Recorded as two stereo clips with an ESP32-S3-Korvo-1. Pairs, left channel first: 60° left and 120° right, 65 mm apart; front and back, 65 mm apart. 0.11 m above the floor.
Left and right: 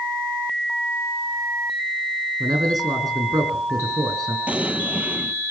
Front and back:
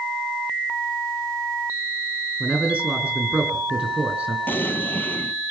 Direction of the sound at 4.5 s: 55° right.